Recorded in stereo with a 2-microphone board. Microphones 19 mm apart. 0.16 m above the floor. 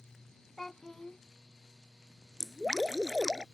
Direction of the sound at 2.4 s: 20° right (ahead or behind).